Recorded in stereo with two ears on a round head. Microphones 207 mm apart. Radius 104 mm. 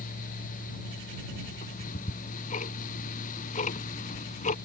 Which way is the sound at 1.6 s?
35° left (ahead or behind).